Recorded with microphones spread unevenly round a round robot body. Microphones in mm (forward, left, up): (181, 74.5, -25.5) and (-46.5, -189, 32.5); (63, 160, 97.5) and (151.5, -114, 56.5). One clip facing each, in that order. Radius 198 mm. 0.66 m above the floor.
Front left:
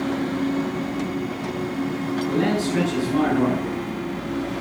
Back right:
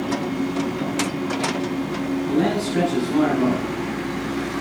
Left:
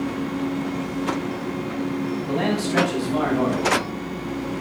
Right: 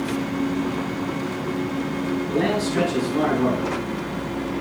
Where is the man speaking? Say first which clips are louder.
Even, even; 105° left, 6 m.